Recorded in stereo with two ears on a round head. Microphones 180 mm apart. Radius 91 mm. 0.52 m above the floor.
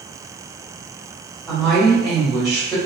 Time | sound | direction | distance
1.5 | a woman speaking | centre (ahead or behind) | 1.9 m